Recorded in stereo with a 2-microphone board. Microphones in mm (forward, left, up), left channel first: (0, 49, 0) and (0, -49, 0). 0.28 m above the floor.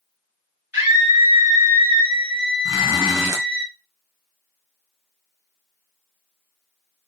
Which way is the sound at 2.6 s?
30° right (ahead or behind).